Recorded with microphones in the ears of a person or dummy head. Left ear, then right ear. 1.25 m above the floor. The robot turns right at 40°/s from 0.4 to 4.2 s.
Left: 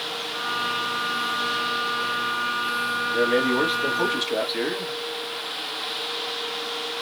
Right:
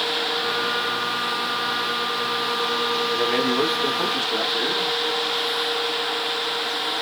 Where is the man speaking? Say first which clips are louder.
Even; 15° right, 1.5 m; by 5.0 s 30° left, 1.5 m.